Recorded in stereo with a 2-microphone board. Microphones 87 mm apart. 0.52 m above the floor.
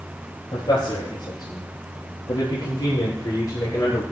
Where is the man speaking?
70° left (ahead or behind), 9 m; by 4.0 s 40° left (ahead or behind), 8.5 m.